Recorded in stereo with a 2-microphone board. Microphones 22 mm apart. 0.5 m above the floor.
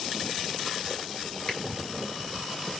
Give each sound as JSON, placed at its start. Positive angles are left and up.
{"t": 1.5, "sound": "a finger snap", "side_deg": 45, "distance_m": 1.9}